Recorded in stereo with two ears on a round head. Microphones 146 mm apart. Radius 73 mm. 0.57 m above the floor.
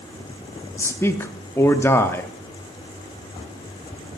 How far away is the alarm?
I don't hear an alarm.